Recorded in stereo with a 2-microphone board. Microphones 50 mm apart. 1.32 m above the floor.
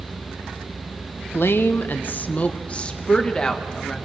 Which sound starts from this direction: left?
A woman speaking, at 1.3 s.